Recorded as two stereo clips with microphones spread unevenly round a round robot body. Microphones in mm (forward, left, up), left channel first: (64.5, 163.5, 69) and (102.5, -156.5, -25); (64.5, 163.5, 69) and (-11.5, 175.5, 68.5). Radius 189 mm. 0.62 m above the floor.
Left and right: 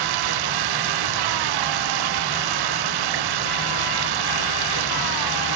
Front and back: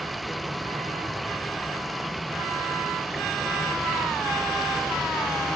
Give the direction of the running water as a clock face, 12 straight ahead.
3 o'clock.